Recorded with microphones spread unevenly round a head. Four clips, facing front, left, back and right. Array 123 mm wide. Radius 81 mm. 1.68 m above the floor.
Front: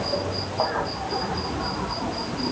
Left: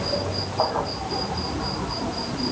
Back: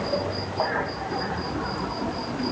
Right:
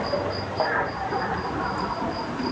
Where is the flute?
I don't hear a flute.